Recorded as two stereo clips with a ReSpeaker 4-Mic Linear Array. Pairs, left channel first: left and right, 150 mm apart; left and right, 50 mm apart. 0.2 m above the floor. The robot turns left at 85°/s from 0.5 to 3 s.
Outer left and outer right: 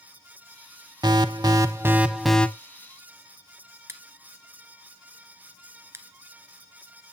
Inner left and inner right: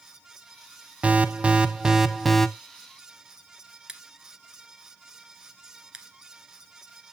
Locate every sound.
1.0 s an alarm: 25° right (ahead or behind), 0.7 m; by 2.5 s 10° left (ahead or behind), 0.7 m
3.9 s scissors: 20° right (ahead or behind), 1.3 m